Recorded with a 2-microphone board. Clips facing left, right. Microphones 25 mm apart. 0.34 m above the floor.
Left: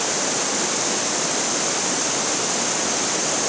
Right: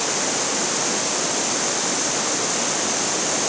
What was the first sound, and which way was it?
Only background noise.